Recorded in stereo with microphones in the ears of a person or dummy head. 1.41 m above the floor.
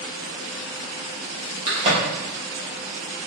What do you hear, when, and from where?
1.7 s a crack: 30° right (ahead or behind), 1.1 m